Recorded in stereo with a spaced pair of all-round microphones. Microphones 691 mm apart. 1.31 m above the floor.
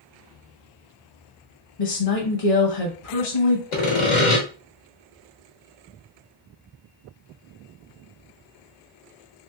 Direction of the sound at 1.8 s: 55° left (ahead or behind).